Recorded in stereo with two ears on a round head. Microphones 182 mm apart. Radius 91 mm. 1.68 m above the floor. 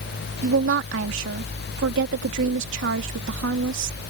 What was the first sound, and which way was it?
A woman speaking, 65° right (ahead or behind).